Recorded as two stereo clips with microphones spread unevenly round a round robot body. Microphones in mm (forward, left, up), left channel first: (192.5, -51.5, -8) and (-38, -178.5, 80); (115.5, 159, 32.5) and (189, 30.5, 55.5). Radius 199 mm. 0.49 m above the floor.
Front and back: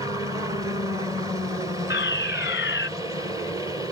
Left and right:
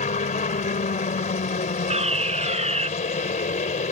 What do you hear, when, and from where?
0.0 s a helicopter: 115° left
1.9 s a fire alarm: 15° right